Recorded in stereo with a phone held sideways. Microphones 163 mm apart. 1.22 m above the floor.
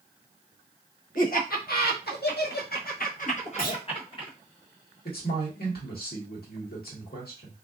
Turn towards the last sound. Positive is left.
turn(degrees=75)  # may be behind; listen again after turning